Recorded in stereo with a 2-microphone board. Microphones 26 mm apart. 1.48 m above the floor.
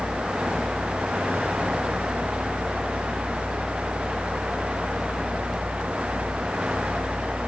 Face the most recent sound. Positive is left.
No sound to turn to.